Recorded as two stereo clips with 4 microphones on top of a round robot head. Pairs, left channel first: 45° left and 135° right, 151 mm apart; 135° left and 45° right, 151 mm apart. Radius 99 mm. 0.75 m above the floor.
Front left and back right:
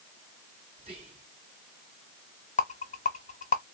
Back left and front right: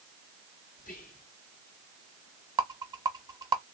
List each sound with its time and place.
0.8 s whispering: 170° left, 2.0 m
2.6 s a rattle: 20° left, 1.1 m